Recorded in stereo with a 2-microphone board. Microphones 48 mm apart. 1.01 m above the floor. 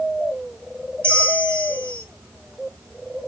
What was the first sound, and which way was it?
A bell, 60° right (ahead or behind).